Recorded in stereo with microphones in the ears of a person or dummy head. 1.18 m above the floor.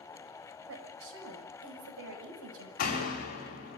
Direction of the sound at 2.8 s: 50° left (ahead or behind).